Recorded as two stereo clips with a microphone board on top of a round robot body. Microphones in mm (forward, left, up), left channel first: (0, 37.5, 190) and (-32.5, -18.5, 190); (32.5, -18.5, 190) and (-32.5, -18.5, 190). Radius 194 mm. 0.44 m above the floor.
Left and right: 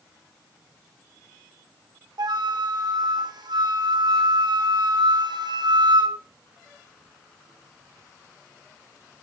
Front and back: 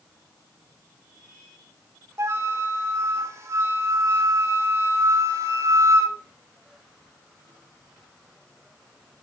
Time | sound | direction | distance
2.2 | a flute | 130° right | 2 m